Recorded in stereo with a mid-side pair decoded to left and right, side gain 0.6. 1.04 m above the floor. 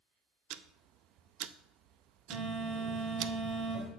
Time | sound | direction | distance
0.5 | ticking | 65° right | 0.5 m
2.3 | a phone buzzing | 50° right | 3 m